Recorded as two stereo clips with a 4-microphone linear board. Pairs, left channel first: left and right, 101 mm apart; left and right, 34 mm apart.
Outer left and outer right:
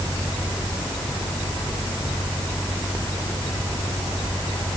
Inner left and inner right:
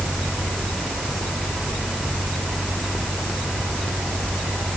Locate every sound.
Only background noise.